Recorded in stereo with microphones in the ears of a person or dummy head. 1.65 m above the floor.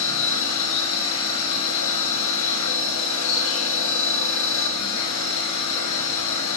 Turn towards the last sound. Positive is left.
turn(degrees=75)  # may be behind; listen again after turning